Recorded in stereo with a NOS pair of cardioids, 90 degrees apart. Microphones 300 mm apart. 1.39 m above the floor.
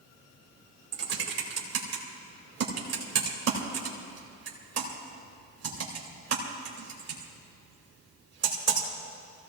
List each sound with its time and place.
0.9 s typing on a keyboard: 55° right, 3 m